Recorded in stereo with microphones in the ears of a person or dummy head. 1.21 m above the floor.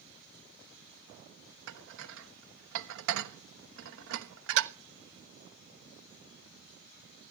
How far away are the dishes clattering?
About 0.9 m.